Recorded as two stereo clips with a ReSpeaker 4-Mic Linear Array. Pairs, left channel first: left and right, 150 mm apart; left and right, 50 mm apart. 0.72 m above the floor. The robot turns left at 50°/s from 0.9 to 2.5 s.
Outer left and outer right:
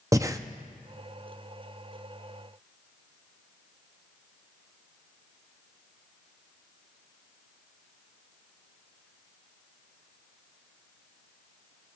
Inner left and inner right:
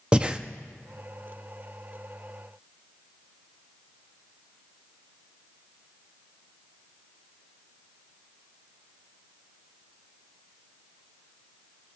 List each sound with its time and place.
0.1 s breathing: 20° right (ahead or behind), 0.6 m